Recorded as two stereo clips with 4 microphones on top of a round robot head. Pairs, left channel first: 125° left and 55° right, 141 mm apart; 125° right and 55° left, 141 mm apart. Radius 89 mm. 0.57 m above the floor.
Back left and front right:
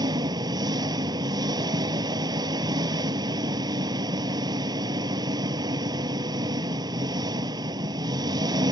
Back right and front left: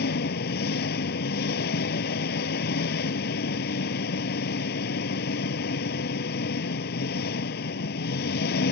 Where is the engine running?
120° right.